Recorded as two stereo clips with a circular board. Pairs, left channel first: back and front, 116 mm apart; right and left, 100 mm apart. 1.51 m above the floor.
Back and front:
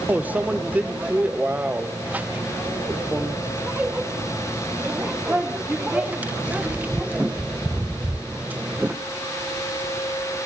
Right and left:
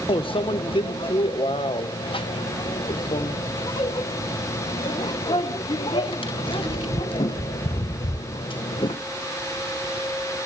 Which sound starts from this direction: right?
A microwave, at 0.1 s.